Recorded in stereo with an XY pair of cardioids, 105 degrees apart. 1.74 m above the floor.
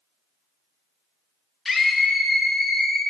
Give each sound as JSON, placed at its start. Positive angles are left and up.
{"t": 1.6, "sound": "a scream", "azimuth_deg": 35, "distance_m": 2.0}